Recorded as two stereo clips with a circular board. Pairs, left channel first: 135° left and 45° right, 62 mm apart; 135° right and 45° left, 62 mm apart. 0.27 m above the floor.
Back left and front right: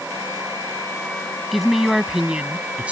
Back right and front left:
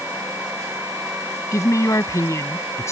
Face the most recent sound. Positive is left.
turn(degrees=-110)